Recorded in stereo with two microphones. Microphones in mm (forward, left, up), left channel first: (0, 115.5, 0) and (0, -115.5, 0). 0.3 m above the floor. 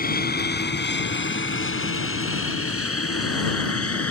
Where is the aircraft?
35° left (ahead or behind); by 4.1 s 70° left (ahead or behind).